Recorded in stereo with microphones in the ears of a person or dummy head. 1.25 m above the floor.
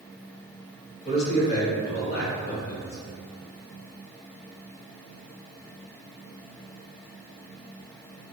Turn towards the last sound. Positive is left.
turn(degrees=40)  # may be behind; listen again after turning